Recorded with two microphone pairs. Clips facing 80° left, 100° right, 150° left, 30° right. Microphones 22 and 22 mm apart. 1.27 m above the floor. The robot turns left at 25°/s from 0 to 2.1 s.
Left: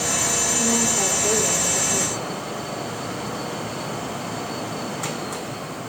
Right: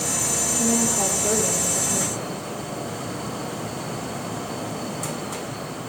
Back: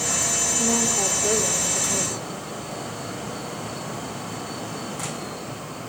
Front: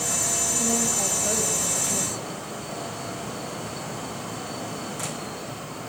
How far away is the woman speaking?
About 5 m.